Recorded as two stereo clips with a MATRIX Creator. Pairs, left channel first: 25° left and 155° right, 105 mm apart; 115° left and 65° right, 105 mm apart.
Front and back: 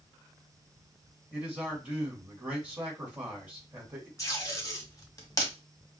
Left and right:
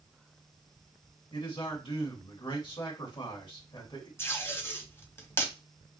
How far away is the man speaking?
About 1.8 m.